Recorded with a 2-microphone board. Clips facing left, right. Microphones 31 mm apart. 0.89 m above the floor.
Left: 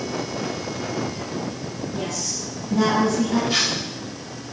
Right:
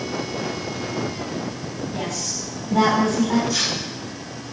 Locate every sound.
1.9 s a woman speaking: 85° right, 6.5 m
3.5 s tearing paper: 50° left (ahead or behind), 4 m